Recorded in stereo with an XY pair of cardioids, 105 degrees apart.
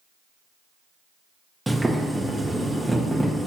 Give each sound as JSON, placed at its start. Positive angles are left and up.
{"t": 1.7, "sound": "boiling", "azimuth_deg": -10, "distance_m": 1.0}